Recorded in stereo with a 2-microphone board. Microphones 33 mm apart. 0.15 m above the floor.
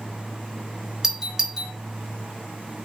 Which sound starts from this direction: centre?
A doorbell, at 1.0 s.